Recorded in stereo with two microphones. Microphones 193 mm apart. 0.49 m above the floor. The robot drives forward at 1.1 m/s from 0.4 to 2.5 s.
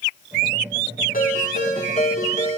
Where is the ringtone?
45° left (ahead or behind), 4 m; by 2.6 s 35° left (ahead or behind), 5.5 m.